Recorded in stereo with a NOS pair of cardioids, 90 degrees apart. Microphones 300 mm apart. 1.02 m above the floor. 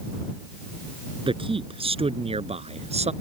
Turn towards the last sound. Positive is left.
turn(degrees=-20)